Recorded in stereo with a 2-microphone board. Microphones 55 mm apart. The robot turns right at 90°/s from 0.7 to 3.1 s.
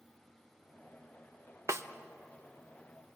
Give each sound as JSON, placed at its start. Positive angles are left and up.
{"t": 1.7, "sound": "a snare drum", "side_deg": -60, "distance_m": 0.7}